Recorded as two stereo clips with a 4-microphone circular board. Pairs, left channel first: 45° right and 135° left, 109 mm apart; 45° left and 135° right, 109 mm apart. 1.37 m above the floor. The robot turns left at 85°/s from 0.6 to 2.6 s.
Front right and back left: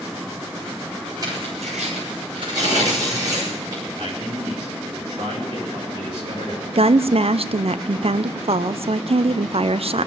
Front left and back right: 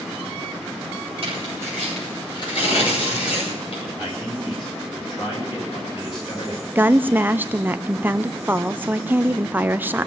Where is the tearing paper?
165° right, 7.5 m; by 3.9 s 75° left, 7.5 m.